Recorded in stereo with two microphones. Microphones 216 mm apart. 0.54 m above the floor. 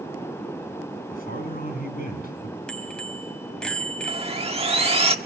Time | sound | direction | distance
1.1 | a man speaking | 40° left (ahead or behind) | 6.5 m
2.7 | a bicycle bell | 5° left (ahead or behind) | 2.5 m
4.1 | sawing | 30° right (ahead or behind) | 1.5 m